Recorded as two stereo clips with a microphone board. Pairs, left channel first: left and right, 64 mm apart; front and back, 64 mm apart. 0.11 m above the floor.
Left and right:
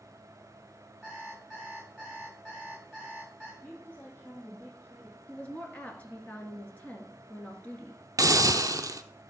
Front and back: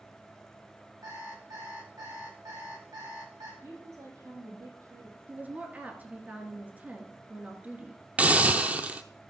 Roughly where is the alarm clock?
Behind.